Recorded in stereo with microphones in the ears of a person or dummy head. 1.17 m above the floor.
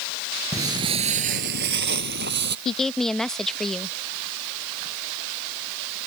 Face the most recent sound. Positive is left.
turn(degrees=0)  # may be behind; listen again after turning